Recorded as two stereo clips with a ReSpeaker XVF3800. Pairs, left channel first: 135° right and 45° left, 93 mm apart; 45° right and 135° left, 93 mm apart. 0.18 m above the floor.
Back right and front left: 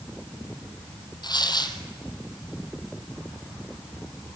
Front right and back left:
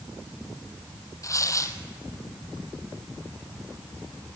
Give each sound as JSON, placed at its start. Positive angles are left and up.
{"t": 1.2, "sound": "tearing paper", "azimuth_deg": -100, "distance_m": 1.2}